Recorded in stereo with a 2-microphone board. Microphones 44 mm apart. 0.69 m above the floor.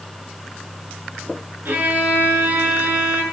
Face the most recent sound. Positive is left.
turn(degrees=-50)  # may be behind; listen again after turning